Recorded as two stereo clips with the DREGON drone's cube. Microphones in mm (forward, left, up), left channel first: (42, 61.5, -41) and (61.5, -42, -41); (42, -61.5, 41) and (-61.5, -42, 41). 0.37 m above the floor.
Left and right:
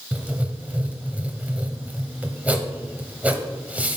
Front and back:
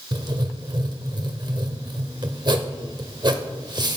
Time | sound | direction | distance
0.1 | writing | 150° right | 0.9 m